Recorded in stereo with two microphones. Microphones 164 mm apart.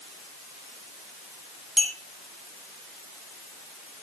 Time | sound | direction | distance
1.8 | a clink | centre (ahead or behind) | 4 m